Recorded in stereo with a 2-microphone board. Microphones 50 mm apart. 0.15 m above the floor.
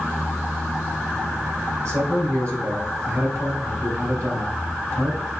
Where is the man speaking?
65° right (ahead or behind), 2.5 m.